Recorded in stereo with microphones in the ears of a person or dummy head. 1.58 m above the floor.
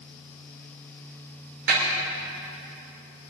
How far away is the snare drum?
About 5.5 m.